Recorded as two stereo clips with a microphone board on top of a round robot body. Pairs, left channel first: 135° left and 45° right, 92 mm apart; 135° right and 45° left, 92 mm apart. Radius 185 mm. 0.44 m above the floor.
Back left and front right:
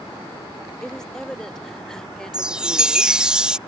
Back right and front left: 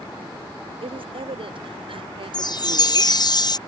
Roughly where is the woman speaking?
Ahead left.